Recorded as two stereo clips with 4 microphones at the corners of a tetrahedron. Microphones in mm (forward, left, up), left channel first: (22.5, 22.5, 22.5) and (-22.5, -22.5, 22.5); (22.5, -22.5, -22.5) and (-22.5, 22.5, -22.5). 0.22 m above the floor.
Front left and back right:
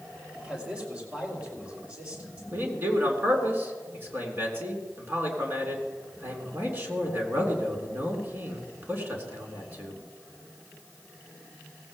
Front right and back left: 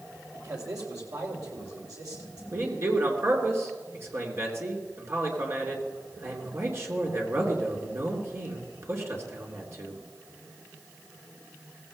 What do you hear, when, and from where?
0.3 s a man speaking: 155° left, 5 m
2.5 s a man speaking: 175° left, 3 m